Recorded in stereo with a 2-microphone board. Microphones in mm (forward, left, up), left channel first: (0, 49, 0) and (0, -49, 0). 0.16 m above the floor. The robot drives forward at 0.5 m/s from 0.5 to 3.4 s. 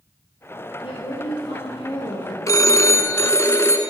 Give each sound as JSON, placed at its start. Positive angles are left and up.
{"t": 0.8, "sound": "a woman speaking", "side_deg": 70, "distance_m": 3.5}
{"t": 2.5, "sound": "a phone ringing", "side_deg": 35, "distance_m": 0.9}